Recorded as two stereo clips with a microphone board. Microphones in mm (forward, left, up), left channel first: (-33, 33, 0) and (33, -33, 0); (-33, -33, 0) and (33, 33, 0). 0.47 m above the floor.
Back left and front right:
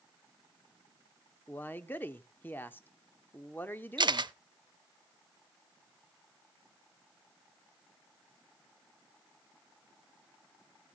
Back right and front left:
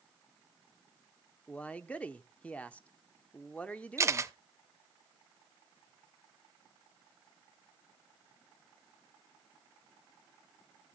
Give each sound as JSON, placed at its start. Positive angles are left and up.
{"t": 1.5, "sound": "a man speaking", "azimuth_deg": 170, "distance_m": 0.7}
{"t": 4.0, "sound": "a camera shutter", "azimuth_deg": -10, "distance_m": 0.6}